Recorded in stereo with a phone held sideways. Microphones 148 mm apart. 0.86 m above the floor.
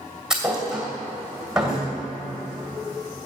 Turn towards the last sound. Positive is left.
turn(degrees=-5)  # may be behind; listen again after turning